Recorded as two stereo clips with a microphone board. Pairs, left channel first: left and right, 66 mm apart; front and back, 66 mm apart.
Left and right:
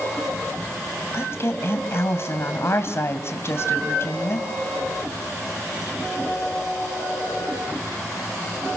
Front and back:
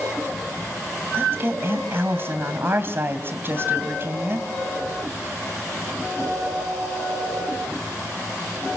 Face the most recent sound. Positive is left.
turn(degrees=130)